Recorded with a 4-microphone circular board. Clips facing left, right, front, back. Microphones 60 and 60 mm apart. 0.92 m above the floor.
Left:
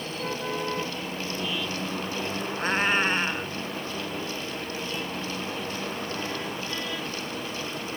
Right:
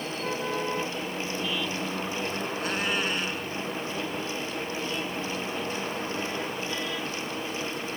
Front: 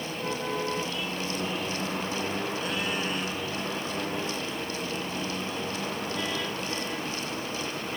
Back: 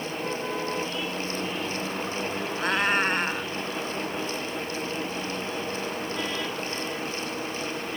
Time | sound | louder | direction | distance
2.6 | a cat meowing | left 6 dB, back 6 dB | 145° left | ?